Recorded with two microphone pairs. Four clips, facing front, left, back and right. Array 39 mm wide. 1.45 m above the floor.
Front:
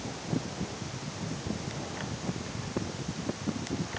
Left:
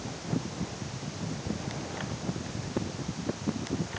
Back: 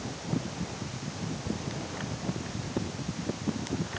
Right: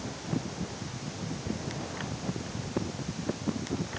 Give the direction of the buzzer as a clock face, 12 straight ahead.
No buzzer in this recording.